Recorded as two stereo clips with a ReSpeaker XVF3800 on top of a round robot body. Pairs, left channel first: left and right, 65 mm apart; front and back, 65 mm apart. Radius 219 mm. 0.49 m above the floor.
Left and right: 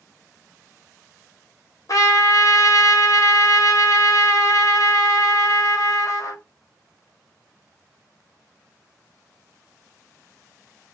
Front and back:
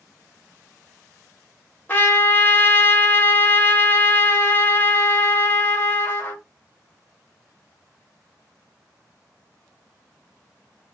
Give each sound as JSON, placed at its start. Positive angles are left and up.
{"t": 1.9, "sound": "a trumpet", "azimuth_deg": 65, "distance_m": 1.3}